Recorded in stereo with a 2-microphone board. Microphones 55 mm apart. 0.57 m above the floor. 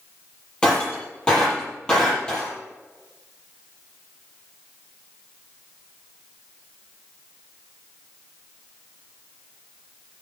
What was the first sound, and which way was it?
Breaking glass, 15° left (ahead or behind).